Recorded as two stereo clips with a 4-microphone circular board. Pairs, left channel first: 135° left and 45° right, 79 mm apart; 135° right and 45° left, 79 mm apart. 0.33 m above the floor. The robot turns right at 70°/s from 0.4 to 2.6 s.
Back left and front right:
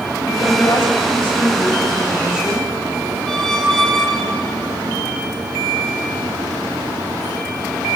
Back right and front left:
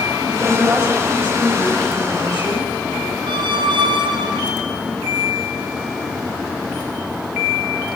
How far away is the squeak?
About 2.5 m.